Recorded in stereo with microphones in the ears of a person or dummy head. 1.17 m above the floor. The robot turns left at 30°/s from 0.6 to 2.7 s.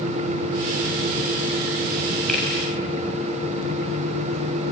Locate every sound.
2.3 s a finger snap: 5° left (ahead or behind), 7.5 m; by 2.5 s 10° left (ahead or behind), 7.5 m